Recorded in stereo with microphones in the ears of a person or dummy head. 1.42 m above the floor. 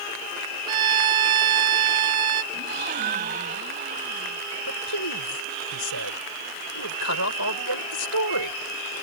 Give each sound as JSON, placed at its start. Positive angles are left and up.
{"t": 0.7, "sound": "a violin", "side_deg": -20}
{"t": 2.5, "sound": "a gasp", "side_deg": -45}
{"t": 4.7, "sound": "a man speaking", "side_deg": 70}